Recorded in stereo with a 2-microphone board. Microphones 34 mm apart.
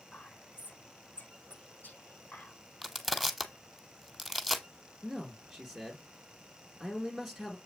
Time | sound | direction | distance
0.1 | whispering | 60° left (ahead or behind) | 5.5 m
2.8 | crushing | centre (ahead or behind) | 0.9 m
5.0 | a man speaking | 5° right (ahead or behind) | 2 m